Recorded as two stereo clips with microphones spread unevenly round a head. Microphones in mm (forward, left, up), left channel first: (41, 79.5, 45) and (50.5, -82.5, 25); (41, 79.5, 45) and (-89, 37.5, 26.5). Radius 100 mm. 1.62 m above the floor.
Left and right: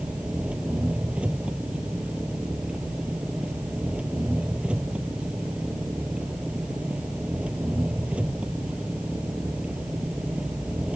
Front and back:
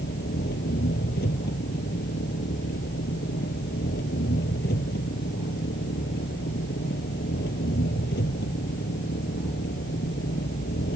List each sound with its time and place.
0.0 s an engine running: 5° right